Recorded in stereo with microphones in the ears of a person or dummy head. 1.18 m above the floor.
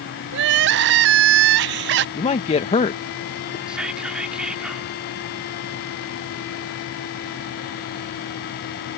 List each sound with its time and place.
0.3 s crying: 60° right (ahead or behind)
2.1 s a man speaking: 25° left (ahead or behind)
3.7 s whispering: 10° right (ahead or behind)